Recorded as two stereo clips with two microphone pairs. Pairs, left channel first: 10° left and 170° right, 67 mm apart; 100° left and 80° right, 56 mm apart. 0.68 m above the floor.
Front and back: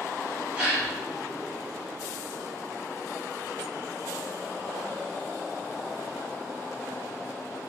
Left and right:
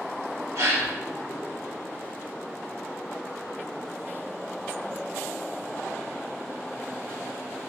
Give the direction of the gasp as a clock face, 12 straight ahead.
3 o'clock.